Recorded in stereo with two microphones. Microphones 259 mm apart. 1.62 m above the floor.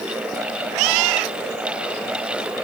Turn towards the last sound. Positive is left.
No sound to turn to.